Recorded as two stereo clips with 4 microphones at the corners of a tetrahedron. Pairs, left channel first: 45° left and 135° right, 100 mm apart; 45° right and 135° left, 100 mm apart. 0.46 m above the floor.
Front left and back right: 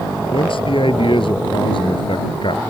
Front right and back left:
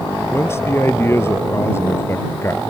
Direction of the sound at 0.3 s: 20° left.